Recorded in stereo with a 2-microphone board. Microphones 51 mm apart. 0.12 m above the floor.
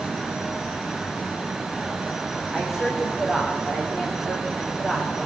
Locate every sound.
2.5 s a woman speaking: 10° right (ahead or behind), 7 m